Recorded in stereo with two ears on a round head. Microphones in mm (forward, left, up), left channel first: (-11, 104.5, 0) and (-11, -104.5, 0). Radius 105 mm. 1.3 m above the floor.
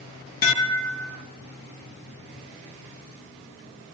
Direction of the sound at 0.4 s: 45° left (ahead or behind).